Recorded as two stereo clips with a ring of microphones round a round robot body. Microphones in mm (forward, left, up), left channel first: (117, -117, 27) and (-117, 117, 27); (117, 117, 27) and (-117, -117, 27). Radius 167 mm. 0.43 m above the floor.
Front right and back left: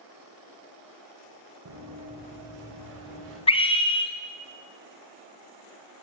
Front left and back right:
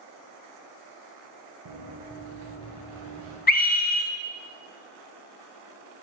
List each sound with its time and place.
1.6 s running footsteps: 175° right, 1.8 m; by 3.4 s 175° left, 4.5 m
3.5 s a scream: 15° left, 1.1 m